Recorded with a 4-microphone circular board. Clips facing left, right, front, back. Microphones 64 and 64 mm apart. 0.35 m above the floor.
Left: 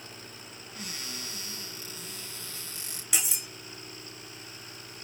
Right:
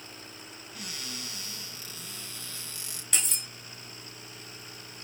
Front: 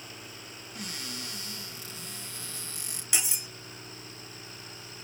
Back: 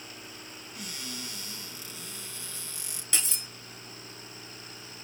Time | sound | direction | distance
0.8 | a cupboard door | 40° left | 3 m
3.1 | cutlery clinking | 25° left | 0.5 m